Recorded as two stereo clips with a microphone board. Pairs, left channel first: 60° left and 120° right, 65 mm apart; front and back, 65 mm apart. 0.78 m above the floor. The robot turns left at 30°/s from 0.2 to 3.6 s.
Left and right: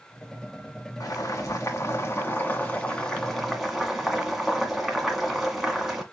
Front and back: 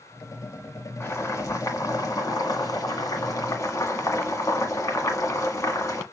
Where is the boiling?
45° left, 1.6 m; by 6.0 s 35° right, 1.6 m.